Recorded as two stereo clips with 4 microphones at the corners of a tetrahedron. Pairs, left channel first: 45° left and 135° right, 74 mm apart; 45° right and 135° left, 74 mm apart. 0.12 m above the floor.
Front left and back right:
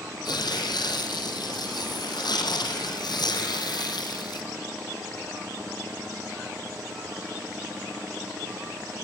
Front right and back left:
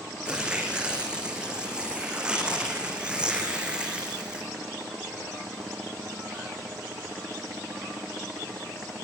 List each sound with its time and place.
0.2 s tearing paper: 60° left, 3.5 m